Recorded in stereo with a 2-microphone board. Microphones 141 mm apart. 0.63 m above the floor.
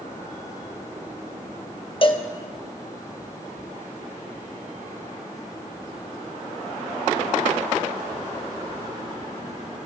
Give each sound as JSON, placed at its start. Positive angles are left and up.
{"t": 2.0, "sound": "a cowbell", "side_deg": 40, "distance_m": 0.6}